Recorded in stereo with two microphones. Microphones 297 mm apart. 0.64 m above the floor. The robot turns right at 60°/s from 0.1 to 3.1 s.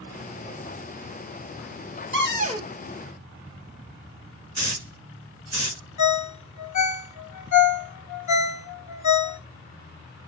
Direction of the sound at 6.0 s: 75° left (ahead or behind).